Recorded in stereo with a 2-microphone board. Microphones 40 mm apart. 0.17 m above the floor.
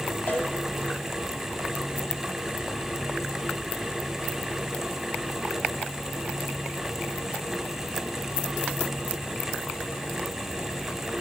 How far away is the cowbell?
About 8 m.